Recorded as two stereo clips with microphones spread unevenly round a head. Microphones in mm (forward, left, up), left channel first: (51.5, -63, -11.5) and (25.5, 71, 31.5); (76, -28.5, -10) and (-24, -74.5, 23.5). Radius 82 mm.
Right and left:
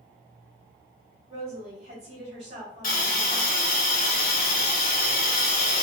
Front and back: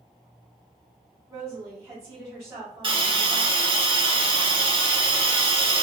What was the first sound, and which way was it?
A woman speaking, 140° left.